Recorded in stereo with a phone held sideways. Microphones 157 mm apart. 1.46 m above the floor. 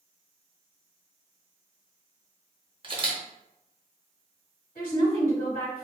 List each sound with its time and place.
2.8 s a camera shutter: 35° right (ahead or behind), 0.7 m
4.8 s a woman speaking: 65° left (ahead or behind), 1.5 m